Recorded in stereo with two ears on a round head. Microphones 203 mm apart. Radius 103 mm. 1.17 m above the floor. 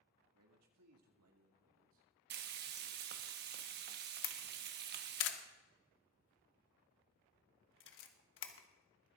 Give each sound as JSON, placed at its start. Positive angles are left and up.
{"t": 0.3, "sound": "a man speaking", "side_deg": -80, "distance_m": 2.0}
{"t": 2.3, "sound": "frying", "side_deg": -50, "distance_m": 0.9}
{"t": 4.2, "sound": "a camera shutter", "side_deg": 60, "distance_m": 1.2}